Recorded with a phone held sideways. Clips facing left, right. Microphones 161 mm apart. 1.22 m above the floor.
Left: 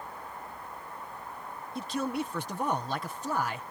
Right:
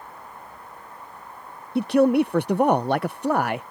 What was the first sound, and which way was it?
A man speaking, 75° right (ahead or behind).